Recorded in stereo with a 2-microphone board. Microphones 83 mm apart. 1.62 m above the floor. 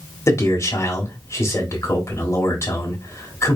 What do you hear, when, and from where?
0.3 s a man speaking: 35° left (ahead or behind), 1.4 m